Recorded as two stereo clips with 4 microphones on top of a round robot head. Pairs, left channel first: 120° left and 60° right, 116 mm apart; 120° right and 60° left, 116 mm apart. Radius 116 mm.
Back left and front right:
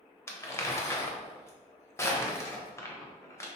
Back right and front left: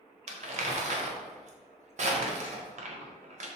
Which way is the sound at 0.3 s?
55° left.